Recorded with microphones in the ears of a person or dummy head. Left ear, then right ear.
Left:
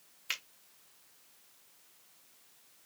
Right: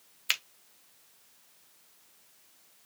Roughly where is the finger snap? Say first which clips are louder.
Right 7 dB; right.